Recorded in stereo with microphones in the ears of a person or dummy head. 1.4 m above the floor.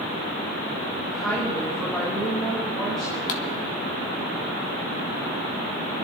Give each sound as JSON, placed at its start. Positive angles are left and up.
{"t": 1.0, "sound": "a woman speaking", "side_deg": 5, "distance_m": 3.0}
{"t": 3.3, "sound": "a pop", "side_deg": 40, "distance_m": 1.4}